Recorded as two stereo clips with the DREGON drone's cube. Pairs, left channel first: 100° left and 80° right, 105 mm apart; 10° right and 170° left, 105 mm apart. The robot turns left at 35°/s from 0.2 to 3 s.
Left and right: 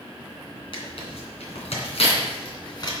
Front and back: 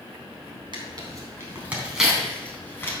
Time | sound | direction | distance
0.7 | tearing paper | 130° left | 3 m